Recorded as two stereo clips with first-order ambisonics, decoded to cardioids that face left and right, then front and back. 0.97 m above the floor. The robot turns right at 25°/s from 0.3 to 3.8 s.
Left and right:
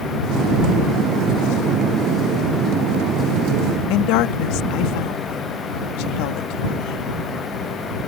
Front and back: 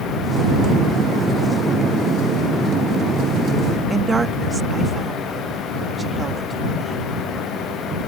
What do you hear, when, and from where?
3.9 s a woman speaking: 105° left